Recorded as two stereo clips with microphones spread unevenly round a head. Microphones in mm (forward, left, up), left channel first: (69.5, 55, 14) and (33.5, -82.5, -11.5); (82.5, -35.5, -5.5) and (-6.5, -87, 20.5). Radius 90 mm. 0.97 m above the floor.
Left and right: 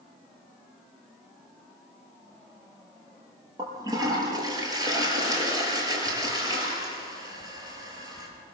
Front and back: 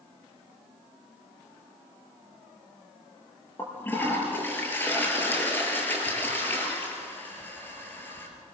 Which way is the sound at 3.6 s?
40° right.